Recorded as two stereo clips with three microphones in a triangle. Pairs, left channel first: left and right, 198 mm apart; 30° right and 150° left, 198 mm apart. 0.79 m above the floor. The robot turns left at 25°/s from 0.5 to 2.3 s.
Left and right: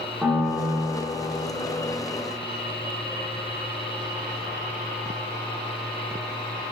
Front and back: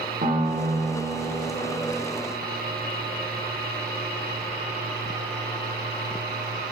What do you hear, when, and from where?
0.2 s a piano: 170° right, 1.0 m; by 1.5 s 165° left, 1.0 m